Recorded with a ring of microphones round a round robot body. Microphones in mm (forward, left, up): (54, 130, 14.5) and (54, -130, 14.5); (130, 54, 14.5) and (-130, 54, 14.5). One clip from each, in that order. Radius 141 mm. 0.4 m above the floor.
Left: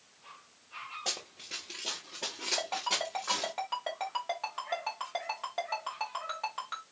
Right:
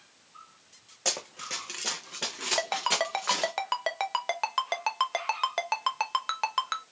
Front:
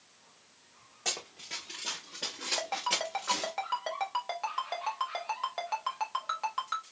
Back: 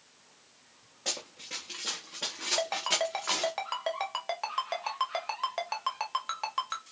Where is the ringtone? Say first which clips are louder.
Right 7 dB, back 3 dB; 105° right, 0.7 m.